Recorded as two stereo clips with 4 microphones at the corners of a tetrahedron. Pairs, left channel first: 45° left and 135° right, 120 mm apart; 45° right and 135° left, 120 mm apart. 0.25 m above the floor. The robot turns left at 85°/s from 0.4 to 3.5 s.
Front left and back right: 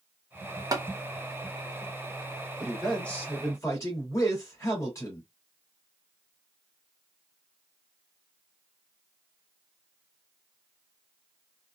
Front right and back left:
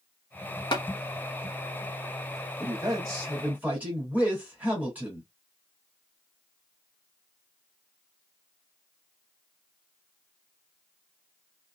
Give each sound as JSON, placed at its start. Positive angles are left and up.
{"t": 0.7, "sound": "tapping", "azimuth_deg": -80, "distance_m": 0.9}
{"t": 2.6, "sound": "a man speaking", "azimuth_deg": 150, "distance_m": 1.8}